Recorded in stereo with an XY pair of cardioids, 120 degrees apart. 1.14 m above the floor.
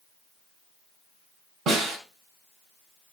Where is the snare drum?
55° right, 5 m.